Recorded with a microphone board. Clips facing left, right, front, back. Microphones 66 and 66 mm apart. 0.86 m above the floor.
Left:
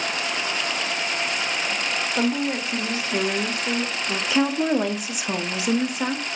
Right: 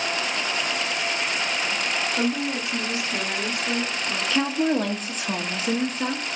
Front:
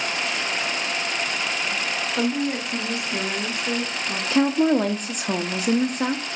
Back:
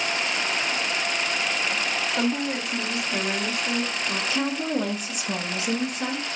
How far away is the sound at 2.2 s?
About 0.8 m.